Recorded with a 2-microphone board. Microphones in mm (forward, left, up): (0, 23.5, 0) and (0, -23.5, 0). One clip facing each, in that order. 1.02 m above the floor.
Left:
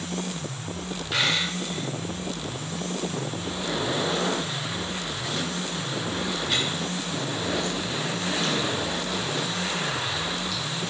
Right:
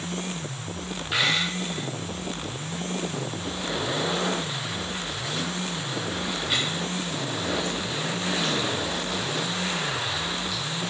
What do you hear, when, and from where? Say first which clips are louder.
1.1 s a dropped coin: right 1 dB; 10° right (ahead or behind), 3.5 m